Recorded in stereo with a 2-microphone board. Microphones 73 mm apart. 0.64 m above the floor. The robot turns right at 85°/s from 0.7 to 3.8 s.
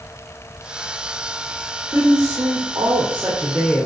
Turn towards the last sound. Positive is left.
turn(degrees=25)